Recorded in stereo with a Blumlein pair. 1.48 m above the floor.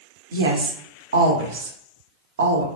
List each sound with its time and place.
0.3 s a woman speaking: 60° right, 0.6 m